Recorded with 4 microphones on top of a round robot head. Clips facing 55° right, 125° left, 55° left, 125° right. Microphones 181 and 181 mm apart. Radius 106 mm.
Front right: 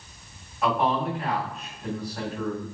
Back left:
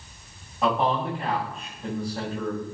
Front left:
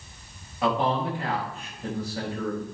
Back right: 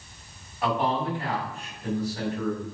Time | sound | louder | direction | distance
0.6 | a man speaking | even, front left 1 dB | 60° left | 5.5 m